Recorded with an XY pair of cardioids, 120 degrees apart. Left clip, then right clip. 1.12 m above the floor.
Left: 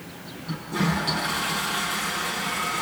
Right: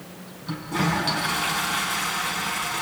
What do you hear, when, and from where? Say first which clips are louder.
0.5 s a toilet flushing: right 2 dB; 30° right, 6 m